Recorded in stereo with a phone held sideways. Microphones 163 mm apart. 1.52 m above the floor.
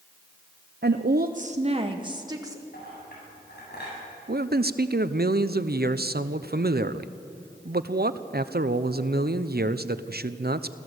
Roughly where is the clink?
Left.